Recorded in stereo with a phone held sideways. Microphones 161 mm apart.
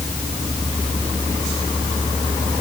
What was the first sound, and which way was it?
Only background noise.